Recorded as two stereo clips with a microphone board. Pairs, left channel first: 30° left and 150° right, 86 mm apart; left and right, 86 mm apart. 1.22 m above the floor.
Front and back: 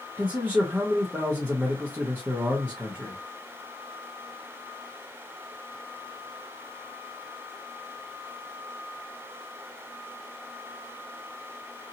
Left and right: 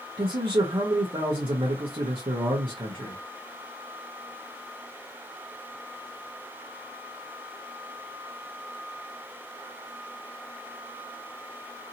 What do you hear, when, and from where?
0.2 s a man speaking: 80° right, 0.8 m